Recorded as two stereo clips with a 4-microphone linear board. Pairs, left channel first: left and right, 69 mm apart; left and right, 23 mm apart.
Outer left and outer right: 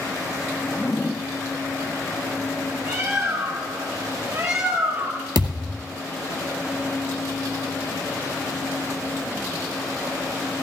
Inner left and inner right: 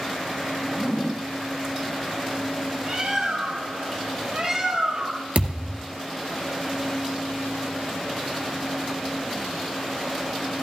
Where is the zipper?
30° left (ahead or behind), 0.9 m.